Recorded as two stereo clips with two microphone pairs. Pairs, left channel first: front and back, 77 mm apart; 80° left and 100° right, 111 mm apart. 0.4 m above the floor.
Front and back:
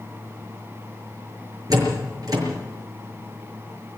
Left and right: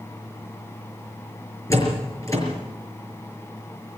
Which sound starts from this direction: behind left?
A door slam, at 1.7 s.